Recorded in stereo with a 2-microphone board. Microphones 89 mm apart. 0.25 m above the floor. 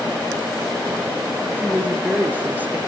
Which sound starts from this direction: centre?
A woman speaking, at 1.6 s.